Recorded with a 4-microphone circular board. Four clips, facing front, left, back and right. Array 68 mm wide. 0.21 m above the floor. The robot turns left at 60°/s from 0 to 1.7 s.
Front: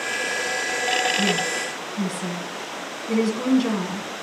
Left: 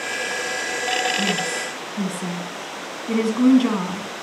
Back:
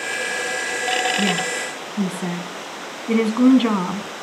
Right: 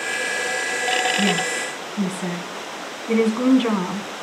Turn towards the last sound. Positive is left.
turn(degrees=-170)